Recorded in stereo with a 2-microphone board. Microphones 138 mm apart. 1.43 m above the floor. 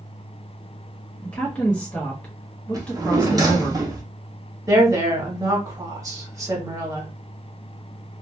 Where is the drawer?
30° right (ahead or behind), 0.8 m.